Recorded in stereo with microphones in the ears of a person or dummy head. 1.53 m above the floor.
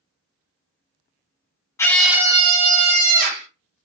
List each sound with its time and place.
1.8 s a scream: 15° left (ahead or behind), 0.5 m; by 3.5 s 50° right (ahead or behind), 1.0 m